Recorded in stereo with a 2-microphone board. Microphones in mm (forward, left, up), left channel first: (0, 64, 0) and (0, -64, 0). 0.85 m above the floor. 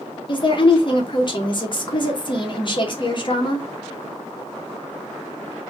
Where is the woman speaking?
35° left (ahead or behind), 0.8 m.